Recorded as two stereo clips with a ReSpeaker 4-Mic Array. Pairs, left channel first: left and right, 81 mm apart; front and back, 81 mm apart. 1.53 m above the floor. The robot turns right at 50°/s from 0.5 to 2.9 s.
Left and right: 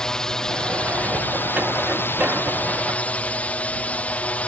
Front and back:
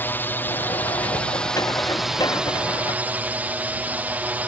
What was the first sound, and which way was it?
A drone, 20° left.